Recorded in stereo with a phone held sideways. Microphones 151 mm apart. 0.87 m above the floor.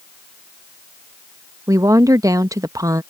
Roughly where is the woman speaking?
Right.